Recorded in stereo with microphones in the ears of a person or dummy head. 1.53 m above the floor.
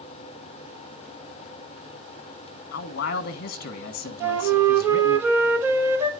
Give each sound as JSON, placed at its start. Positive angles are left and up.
{"t": 2.7, "sound": "a man speaking", "side_deg": 55, "distance_m": 1.1}
{"t": 4.2, "sound": "a flute", "side_deg": -15, "distance_m": 1.2}